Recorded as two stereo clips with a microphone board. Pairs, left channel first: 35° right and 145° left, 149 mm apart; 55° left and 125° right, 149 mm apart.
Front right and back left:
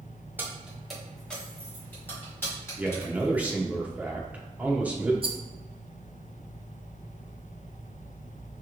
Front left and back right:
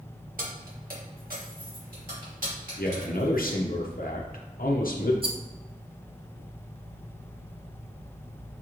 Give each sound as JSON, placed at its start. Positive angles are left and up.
{"t": 0.4, "sound": "keys jangling", "azimuth_deg": -140, "distance_m": 1.0}
{"t": 2.8, "sound": "a man speaking", "azimuth_deg": 65, "distance_m": 0.7}
{"t": 5.2, "sound": "a rattle", "azimuth_deg": -170, "distance_m": 0.5}